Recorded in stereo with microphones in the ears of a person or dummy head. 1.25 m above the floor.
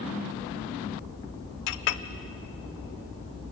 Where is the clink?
60° left (ahead or behind), 0.8 m.